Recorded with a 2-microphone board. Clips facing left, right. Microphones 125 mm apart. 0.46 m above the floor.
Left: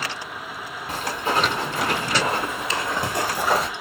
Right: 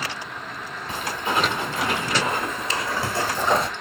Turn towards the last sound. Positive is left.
turn(degrees=0)  # may be behind; listen again after turning